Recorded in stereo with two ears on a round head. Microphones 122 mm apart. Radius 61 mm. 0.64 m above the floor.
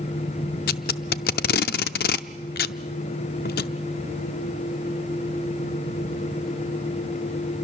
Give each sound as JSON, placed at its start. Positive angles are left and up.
{"t": 0.7, "sound": "tape being pulled", "side_deg": 85, "distance_m": 0.5}